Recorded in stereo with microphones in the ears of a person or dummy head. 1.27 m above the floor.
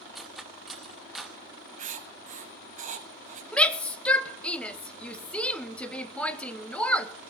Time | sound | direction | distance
0.1 | cutlery clinking | 5° right (ahead or behind) | 0.8 m
1.8 | writing | 45° right (ahead or behind) | 1.4 m
3.5 | a shout | 10° left (ahead or behind) | 1.3 m